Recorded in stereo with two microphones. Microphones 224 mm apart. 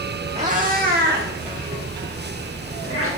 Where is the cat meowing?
30° right (ahead or behind), 2.5 m; by 3.1 s 75° right (ahead or behind), 5.5 m.